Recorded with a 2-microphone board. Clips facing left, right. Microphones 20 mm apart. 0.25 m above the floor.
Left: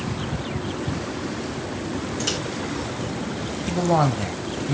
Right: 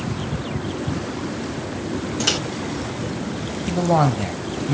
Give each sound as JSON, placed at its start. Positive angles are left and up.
{"t": 2.2, "sound": "a microwave", "side_deg": -30, "distance_m": 0.8}
{"t": 3.7, "sound": "a man speaking", "side_deg": -10, "distance_m": 1.0}